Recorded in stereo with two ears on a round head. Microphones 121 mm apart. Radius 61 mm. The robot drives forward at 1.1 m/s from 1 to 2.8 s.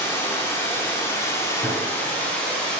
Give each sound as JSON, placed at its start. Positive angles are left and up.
{"t": 0.0, "sound": "running water", "side_deg": 20, "distance_m": 0.9}
{"t": 1.6, "sound": "a gunshot", "side_deg": 25, "distance_m": 2.5}